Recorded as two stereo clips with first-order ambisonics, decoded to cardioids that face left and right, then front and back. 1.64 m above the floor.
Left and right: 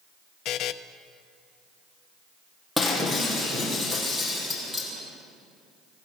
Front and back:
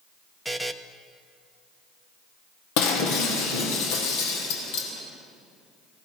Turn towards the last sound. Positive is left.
turn(degrees=0)